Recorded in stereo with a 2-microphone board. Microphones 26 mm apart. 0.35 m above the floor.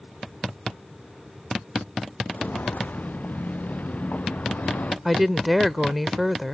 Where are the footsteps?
85° left; by 5.0 s 70° left (ahead or behind).